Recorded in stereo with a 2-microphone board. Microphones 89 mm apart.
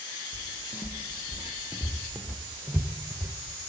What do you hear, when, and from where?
0.3 s footsteps: 45° left (ahead or behind), 2.5 m; by 3.3 s 45° right (ahead or behind), 1.7 m